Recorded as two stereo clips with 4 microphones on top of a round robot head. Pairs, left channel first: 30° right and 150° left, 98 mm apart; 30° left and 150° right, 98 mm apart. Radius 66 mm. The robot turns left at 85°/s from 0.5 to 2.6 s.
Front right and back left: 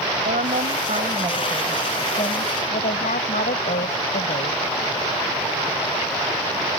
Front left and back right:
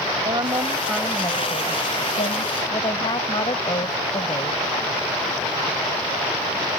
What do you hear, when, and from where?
0.2 s a woman speaking: 155° left; by 4.7 s 20° right